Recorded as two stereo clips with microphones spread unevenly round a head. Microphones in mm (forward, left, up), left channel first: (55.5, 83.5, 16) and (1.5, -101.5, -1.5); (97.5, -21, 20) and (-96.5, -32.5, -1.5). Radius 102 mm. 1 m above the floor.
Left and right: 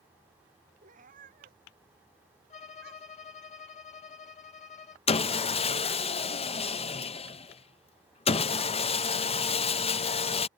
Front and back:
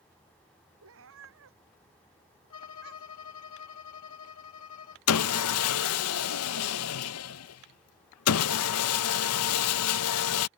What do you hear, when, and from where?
0.8 s a cat meowing: 165° right; by 3.3 s 150° right
2.5 s a violin: 20° left
5.1 s sawing: 10° left